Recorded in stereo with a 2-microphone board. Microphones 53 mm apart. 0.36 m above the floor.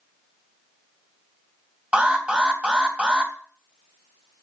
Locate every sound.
1.9 s an alarm: 20° right (ahead or behind), 3 m